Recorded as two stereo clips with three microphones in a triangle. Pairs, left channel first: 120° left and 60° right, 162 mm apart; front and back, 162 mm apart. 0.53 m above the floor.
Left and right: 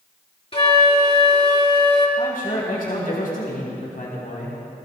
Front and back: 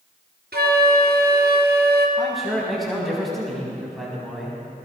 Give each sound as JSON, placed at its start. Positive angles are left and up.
{"t": 0.5, "sound": "a flute", "azimuth_deg": 175, "distance_m": 2.0}
{"t": 2.2, "sound": "a man speaking", "azimuth_deg": 90, "distance_m": 4.0}